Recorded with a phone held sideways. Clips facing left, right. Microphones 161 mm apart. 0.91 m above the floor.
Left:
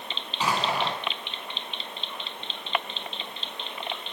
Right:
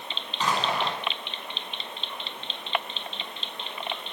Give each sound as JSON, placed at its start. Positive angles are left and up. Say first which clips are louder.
{"t": 0.4, "sound": "an explosion", "louder": "even", "side_deg": 10, "distance_m": 7.0}